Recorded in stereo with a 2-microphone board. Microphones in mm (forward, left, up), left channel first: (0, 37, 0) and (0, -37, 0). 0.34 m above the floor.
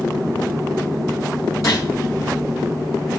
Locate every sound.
1.6 s a gunshot: 45° left (ahead or behind), 2.5 m